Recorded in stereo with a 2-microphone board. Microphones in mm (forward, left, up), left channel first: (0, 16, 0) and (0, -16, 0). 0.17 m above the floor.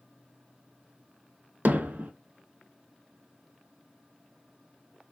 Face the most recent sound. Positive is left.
turn(degrees=-60)  # may be behind; listen again after turning